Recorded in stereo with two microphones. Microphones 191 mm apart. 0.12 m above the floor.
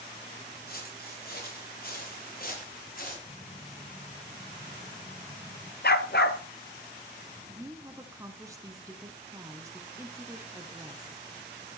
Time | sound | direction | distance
0.7 | footsteps | 55° left (ahead or behind) | 9.5 m
3.3 | a phone buzzing | 40° left (ahead or behind) | 2 m
5.8 | a dog barking | 60° left (ahead or behind) | 0.7 m
7.5 | a woman speaking | 15° right (ahead or behind) | 1.1 m